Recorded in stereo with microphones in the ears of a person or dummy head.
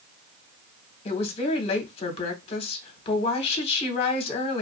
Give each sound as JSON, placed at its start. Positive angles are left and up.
{"t": 1.1, "sound": "a woman speaking", "side_deg": 30, "distance_m": 0.9}